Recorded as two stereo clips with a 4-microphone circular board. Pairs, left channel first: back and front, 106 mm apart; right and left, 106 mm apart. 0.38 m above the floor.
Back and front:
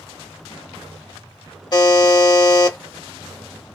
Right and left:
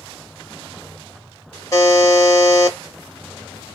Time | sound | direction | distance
1.7 | a buzzer | 140° right | 0.8 m